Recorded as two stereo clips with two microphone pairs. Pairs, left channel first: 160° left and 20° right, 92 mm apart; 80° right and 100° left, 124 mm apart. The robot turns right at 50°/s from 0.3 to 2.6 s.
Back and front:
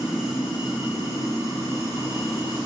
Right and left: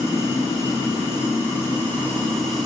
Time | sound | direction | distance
0.0 | running water | 105° right | 1.2 m